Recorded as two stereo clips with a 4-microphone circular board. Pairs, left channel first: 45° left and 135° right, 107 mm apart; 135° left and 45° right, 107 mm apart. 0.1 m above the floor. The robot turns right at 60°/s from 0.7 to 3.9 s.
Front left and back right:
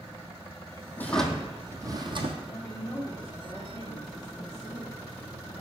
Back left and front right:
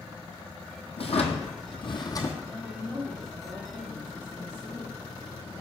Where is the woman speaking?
80° right, 3 m; by 5.6 s 10° left, 3 m.